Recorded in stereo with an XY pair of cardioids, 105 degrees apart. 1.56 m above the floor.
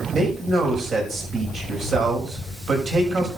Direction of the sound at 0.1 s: 50° right.